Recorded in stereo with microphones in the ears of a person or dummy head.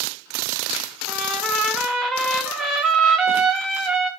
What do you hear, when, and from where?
1.1 s a trumpet: centre (ahead or behind), 1.5 m